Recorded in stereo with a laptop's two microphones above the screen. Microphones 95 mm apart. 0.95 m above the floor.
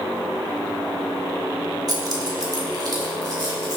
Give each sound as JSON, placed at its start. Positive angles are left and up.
{"t": 1.9, "sound": "keys jangling", "side_deg": -45, "distance_m": 1.3}